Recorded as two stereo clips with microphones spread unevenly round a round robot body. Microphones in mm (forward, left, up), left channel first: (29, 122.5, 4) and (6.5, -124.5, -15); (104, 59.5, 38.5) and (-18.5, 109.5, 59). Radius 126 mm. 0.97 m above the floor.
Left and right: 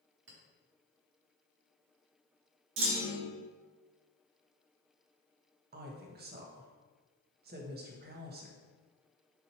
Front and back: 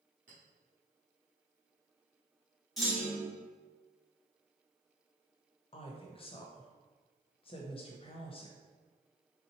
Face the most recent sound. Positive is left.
turn(degrees=-55)